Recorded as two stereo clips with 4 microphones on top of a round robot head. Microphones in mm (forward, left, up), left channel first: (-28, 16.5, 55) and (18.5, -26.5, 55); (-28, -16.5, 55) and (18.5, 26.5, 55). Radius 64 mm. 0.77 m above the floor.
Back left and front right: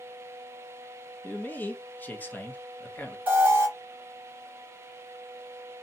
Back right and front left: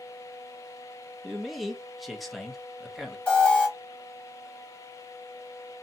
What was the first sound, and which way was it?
A man speaking, 130° left.